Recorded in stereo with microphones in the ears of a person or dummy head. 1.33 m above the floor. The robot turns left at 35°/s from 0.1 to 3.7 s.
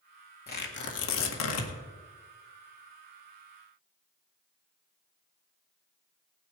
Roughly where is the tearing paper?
Behind left.